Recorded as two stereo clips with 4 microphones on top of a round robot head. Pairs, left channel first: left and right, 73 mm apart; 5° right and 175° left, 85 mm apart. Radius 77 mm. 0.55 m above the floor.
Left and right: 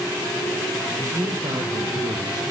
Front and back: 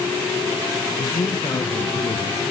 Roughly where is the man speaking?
Ahead right.